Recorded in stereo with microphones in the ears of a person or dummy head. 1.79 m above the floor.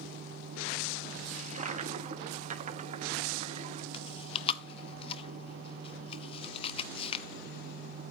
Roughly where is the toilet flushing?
Right.